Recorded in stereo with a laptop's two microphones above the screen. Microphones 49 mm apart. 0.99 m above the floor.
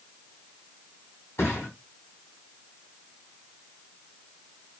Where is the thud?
60° left (ahead or behind), 1.2 m.